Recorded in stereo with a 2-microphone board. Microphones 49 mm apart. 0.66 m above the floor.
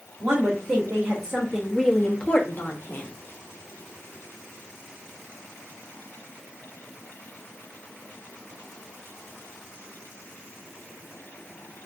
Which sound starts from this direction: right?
A woman speaking, at 0.2 s.